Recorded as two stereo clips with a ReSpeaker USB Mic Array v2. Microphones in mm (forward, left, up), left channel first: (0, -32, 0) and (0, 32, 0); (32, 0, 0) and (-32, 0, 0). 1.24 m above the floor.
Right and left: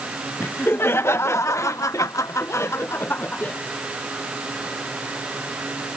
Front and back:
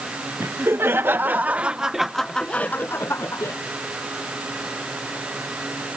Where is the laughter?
140° right; by 3.5 s 30° right.